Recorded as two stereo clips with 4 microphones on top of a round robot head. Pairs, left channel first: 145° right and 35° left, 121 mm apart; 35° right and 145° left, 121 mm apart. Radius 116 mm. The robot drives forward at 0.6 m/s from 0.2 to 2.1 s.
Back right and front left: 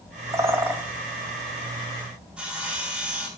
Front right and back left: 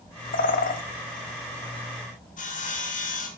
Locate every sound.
0.3 s a bird: 35° right, 1.1 m; by 0.8 s 45° right, 0.9 m
2.4 s sawing: 50° right, 3 m